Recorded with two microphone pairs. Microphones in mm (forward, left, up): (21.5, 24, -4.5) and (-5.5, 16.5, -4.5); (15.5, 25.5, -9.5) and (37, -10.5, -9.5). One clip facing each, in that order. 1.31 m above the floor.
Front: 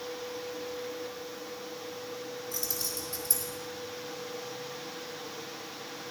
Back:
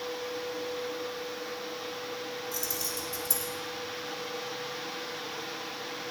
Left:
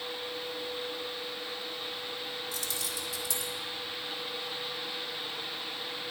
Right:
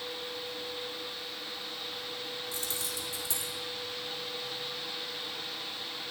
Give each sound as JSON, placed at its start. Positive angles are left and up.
{"t": 2.5, "sound": "keys jangling", "azimuth_deg": -10, "distance_m": 2.5}